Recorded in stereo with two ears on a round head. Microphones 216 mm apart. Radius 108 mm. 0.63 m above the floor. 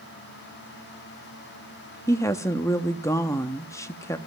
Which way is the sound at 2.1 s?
10° left (ahead or behind).